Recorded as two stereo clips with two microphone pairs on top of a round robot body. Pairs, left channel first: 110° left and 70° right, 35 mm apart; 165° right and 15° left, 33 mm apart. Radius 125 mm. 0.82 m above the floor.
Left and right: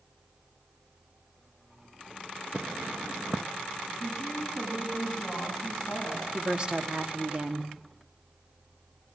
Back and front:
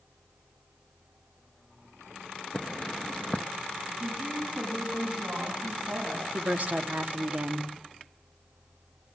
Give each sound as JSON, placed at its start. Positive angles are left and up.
{"t": 2.5, "sound": "footsteps", "azimuth_deg": -125, "distance_m": 0.8}
{"t": 4.0, "sound": "a woman speaking", "azimuth_deg": 25, "distance_m": 6.5}
{"t": 6.3, "sound": "a woman speaking", "azimuth_deg": -5, "distance_m": 2.5}